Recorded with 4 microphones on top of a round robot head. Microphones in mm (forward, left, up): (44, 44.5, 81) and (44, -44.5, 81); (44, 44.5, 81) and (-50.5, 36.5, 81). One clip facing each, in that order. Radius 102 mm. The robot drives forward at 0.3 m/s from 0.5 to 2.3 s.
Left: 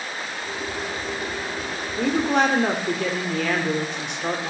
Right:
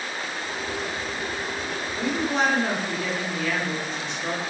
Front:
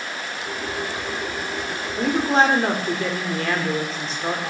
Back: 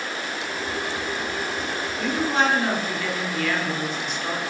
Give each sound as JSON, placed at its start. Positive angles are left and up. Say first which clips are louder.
{"t": 2.0, "sound": "a woman speaking", "louder": "left 4 dB, front 5 dB", "azimuth_deg": 60, "distance_m": 4.0}